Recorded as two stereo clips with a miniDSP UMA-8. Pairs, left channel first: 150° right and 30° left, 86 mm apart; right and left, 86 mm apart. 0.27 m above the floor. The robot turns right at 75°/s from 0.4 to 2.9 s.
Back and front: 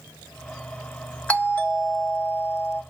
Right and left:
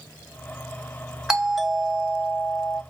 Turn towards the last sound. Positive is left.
turn(degrees=-75)